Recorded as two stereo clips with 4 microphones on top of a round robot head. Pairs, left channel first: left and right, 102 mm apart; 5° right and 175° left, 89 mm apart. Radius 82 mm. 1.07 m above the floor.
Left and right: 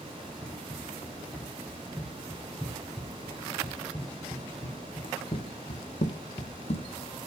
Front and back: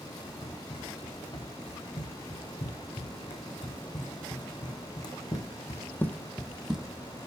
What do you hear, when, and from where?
0.4 s running footsteps: 5° left, 6 m; by 6.9 s 100° left, 1.6 m